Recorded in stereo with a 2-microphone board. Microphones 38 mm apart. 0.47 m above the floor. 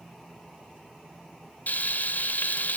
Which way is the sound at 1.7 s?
55° left (ahead or behind).